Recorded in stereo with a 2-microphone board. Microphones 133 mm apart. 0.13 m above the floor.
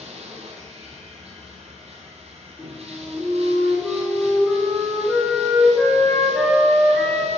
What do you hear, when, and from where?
0.0 s running water: 50° right (ahead or behind), 1.7 m
2.6 s a flute: 5° left (ahead or behind), 2.0 m